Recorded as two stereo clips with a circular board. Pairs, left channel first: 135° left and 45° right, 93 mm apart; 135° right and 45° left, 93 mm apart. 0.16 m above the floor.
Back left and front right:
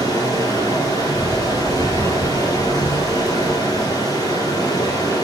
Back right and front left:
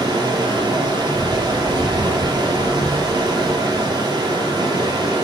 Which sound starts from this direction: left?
Running water, at 0.0 s.